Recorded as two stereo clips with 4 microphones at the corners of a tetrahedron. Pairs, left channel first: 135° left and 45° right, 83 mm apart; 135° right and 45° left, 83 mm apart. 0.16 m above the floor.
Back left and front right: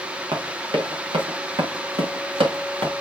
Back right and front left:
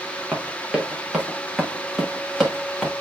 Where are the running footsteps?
35° right, 3 m; by 2.9 s 45° right, 4.5 m.